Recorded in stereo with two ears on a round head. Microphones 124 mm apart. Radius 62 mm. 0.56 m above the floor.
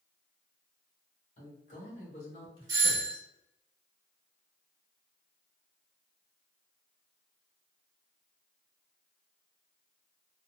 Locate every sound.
1.4 s a man speaking: 60° left (ahead or behind), 1.9 m; by 3.3 s 25° left (ahead or behind), 1.3 m
2.7 s a doorbell: 30° right (ahead or behind), 1.4 m